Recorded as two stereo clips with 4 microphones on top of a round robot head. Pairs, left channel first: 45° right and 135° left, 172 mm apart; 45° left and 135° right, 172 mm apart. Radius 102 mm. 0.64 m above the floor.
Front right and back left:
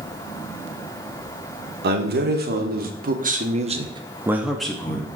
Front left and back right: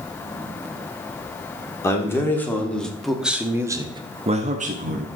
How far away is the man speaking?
About 1.8 m.